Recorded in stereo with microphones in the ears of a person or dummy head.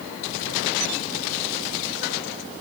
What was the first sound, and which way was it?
Only background noise.